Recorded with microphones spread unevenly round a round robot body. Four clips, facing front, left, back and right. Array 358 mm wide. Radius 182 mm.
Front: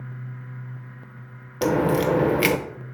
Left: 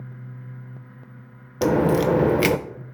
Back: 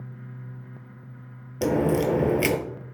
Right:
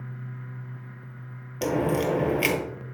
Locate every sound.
1.6 s a crack: 75° left, 0.6 m